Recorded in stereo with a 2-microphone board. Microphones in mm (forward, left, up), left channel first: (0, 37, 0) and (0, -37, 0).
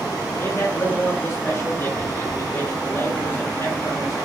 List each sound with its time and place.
0.4 s a man speaking: 40° left (ahead or behind), 3 m